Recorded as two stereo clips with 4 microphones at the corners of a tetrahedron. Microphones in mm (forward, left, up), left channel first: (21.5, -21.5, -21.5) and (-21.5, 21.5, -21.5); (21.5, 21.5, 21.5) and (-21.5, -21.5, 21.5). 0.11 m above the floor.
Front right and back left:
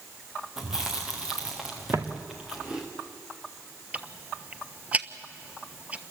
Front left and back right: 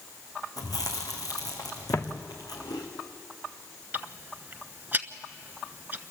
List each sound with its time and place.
0.6 s chewing: 55° left, 3.5 m
1.9 s footsteps: 95° left, 1.7 m
3.9 s ticking: 170° right, 1.0 m